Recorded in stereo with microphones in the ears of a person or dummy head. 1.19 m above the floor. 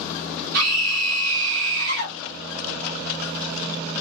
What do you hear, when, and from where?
0.5 s a scream: 55° right (ahead or behind), 1.4 m